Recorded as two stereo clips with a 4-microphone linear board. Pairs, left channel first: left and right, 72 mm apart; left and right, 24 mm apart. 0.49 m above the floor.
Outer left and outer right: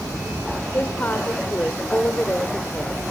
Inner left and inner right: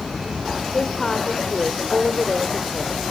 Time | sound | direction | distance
0.7 | a woman speaking | 25° left (ahead or behind) | 1.2 m